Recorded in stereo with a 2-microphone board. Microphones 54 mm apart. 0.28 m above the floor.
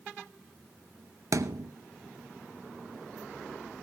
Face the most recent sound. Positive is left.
turn(degrees=-75)  # may be behind; listen again after turning